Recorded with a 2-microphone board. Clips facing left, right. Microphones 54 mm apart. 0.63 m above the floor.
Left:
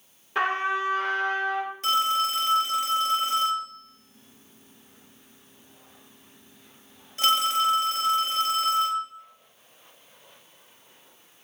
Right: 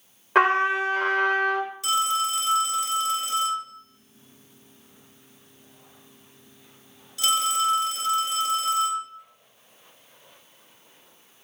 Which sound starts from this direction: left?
A phone ringing, at 1.8 s.